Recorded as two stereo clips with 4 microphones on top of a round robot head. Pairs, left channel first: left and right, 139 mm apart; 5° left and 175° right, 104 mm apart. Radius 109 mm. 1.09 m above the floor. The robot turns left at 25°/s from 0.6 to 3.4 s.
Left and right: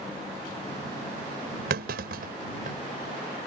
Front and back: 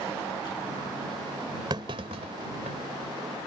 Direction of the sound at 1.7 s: 110° right.